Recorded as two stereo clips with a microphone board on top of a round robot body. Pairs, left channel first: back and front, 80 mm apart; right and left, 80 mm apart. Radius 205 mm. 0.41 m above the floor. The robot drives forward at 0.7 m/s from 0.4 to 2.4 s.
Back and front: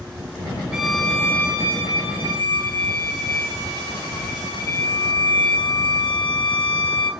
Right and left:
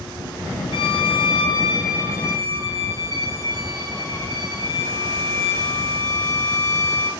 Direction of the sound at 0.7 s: 80° right.